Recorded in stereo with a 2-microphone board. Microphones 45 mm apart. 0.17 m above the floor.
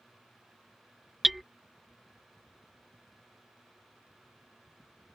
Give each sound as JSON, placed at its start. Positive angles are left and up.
{"t": 1.2, "sound": "hammering", "side_deg": 0}